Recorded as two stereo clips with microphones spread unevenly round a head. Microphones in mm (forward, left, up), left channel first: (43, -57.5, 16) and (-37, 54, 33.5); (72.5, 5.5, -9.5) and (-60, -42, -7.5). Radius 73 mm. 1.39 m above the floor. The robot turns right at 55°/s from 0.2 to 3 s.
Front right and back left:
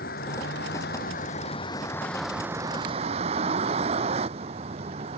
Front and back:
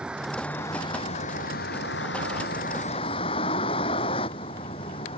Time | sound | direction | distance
0.0 | a vehicle | 75° right | ?